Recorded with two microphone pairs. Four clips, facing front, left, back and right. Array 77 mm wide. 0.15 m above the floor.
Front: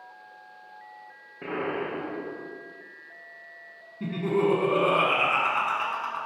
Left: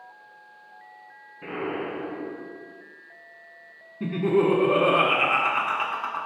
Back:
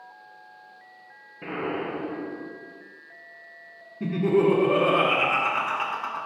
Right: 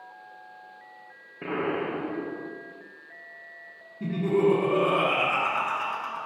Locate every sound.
1.4 s an explosion: 60° right, 4 m
4.0 s laughter: 85° left, 1.2 m